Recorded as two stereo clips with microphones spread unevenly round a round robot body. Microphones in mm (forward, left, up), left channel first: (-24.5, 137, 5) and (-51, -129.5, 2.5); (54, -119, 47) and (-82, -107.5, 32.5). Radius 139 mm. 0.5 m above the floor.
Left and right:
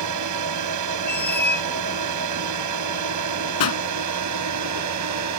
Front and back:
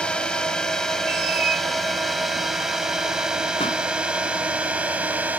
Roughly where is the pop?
Ahead left.